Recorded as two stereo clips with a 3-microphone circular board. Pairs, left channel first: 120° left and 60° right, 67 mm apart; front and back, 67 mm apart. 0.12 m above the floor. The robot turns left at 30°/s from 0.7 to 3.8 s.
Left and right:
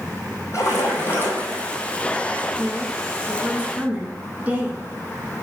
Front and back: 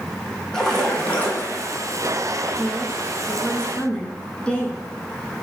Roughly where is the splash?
Left.